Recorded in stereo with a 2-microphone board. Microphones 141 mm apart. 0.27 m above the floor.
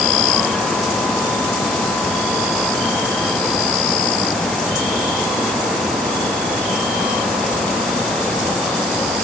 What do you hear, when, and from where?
Only background noise.